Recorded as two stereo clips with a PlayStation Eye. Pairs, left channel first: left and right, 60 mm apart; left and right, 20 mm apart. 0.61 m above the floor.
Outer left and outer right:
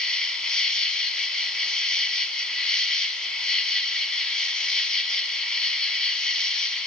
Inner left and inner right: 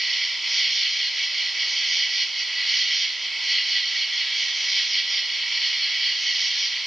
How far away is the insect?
About 0.8 m.